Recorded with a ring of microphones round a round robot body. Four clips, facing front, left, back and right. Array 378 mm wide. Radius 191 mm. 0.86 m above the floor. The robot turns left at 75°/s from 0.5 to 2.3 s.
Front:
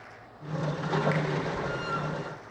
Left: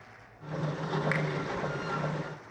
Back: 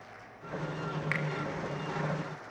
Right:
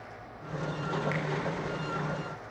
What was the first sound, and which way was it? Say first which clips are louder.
A finger snap: left 2 dB, front 5 dB; 120° left.